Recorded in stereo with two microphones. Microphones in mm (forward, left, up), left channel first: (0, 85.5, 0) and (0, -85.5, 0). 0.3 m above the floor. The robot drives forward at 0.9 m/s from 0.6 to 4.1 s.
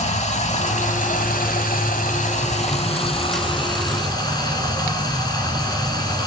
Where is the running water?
40° left (ahead or behind), 1.5 m; by 6.3 s 25° left (ahead or behind), 2.5 m.